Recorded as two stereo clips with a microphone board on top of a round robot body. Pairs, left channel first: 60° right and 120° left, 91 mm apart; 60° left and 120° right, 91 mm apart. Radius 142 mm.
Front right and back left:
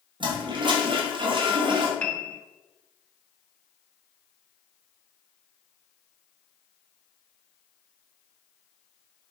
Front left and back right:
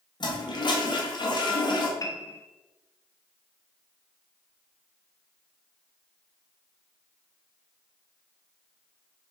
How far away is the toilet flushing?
About 1.0 m.